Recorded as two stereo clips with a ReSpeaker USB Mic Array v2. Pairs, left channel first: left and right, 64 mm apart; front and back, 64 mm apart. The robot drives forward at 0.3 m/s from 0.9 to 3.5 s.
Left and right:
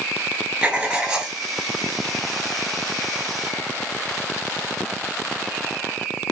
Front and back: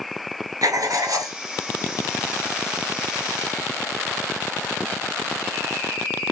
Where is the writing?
165° right, 0.7 m; by 1.4 s 170° right, 0.8 m.